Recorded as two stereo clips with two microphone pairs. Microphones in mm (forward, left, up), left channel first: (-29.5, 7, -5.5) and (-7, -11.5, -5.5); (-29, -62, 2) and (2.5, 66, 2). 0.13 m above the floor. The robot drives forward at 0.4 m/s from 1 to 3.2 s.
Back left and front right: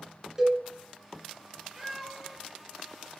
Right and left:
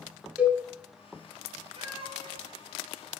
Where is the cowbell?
10° left, 1.4 m.